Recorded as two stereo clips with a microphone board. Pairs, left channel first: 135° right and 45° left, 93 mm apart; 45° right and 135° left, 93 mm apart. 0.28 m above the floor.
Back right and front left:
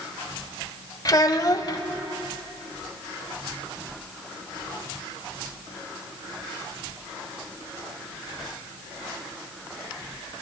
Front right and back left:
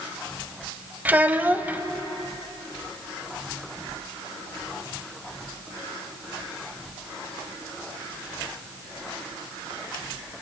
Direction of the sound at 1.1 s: 160° right.